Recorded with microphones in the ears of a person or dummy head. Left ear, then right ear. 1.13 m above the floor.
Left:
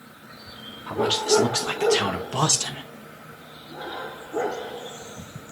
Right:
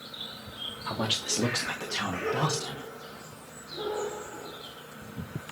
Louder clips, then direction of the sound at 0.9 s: Left 9 dB; 15° right (ahead or behind).